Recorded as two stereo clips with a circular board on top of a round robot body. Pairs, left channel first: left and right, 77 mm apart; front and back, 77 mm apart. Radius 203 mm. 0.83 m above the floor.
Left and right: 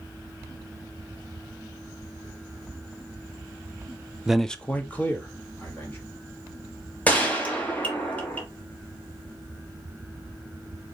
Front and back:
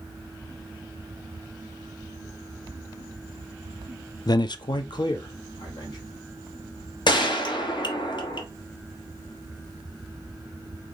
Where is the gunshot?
20° left, 1.4 m.